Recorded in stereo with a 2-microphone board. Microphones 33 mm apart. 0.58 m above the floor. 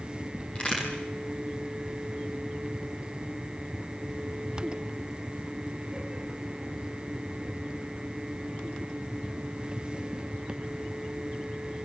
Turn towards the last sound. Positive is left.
turn(degrees=35)  # may be behind; listen again after turning